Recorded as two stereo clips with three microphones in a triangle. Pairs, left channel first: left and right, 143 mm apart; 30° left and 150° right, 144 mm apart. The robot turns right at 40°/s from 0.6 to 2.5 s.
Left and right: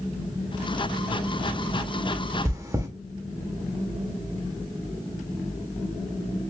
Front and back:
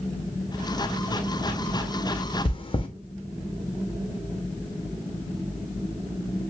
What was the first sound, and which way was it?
Chewing, 25° right.